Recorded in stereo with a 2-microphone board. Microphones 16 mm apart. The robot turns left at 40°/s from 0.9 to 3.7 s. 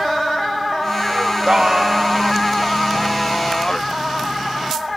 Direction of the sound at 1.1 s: 115° right.